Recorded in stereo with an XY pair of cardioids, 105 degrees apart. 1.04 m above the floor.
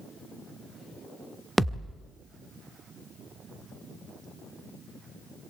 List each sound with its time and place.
1.6 s a thud: 10° right, 1.4 m